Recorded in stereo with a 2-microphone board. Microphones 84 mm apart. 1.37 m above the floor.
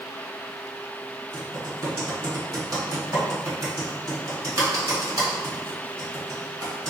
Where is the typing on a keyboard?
40° right (ahead or behind), 1.5 m.